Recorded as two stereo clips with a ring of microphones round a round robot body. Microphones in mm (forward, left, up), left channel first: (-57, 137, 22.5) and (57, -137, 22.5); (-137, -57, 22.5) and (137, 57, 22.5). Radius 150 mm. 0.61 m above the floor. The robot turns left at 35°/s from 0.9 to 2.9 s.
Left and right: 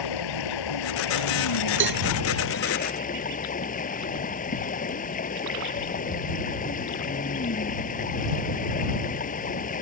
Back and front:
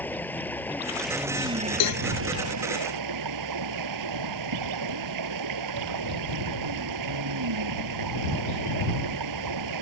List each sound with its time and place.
0.0 s running water: 120° left; by 9.8 s 50° left
1.8 s a cowbell: 120° right; by 2.1 s 130° right